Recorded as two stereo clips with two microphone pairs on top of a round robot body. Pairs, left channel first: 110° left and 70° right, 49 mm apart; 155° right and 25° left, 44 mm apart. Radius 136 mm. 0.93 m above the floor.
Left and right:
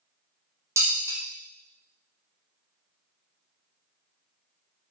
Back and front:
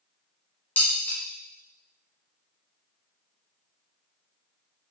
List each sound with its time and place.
0.8 s dishes clattering: 100° right, 0.5 m